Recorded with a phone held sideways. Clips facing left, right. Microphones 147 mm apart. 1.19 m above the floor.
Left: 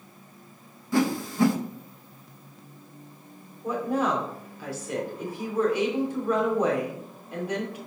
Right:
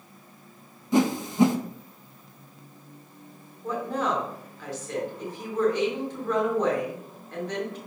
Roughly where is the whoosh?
Centre.